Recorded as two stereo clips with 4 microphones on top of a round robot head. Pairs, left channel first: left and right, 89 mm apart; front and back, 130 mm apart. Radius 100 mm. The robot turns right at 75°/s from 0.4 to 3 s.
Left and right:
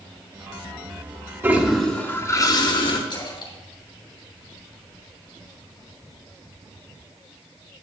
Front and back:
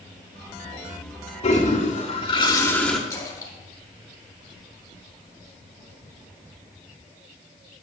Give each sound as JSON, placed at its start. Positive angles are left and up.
{"t": 1.4, "sound": "a toilet flushing", "azimuth_deg": -30, "distance_m": 1.6}
{"t": 3.1, "sound": "a splash", "azimuth_deg": 60, "distance_m": 3.0}